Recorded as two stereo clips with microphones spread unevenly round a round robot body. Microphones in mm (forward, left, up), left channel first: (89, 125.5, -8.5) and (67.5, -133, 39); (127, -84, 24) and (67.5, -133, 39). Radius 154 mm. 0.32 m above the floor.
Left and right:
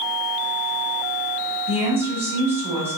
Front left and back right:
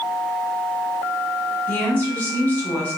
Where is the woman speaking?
5° right, 1.8 m.